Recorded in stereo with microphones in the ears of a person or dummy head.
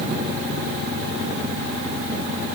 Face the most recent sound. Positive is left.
No sound to turn to.